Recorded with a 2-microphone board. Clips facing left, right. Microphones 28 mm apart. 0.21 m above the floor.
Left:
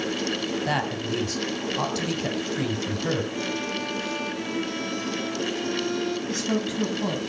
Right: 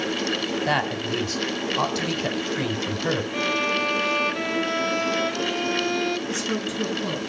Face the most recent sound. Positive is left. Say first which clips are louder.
# even
turn(degrees=50)  # may be behind; listen again after turning